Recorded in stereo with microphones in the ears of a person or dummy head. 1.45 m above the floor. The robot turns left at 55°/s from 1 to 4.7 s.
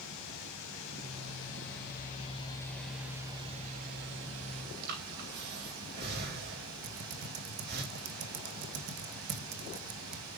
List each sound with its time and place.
0.0 s running water: 105° left, 4 m; by 10.4 s 100° right, 4 m
4.8 s breathing: 55° right (ahead or behind), 4 m
6.8 s typing on a keyboard: 50° right (ahead or behind), 1.5 m